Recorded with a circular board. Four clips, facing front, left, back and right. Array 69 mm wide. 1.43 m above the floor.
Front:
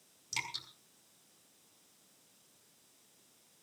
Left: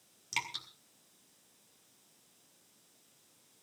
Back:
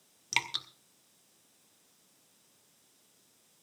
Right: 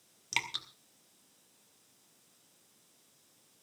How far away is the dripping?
About 1.6 m.